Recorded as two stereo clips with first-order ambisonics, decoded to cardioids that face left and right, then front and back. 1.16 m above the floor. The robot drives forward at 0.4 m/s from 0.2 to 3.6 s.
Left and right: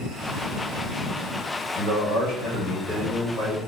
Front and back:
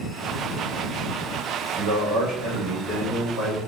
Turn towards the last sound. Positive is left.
turn(degrees=150)